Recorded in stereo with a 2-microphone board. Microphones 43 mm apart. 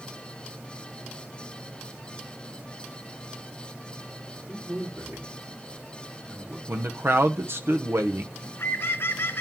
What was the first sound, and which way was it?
A man speaking, 50° right (ahead or behind).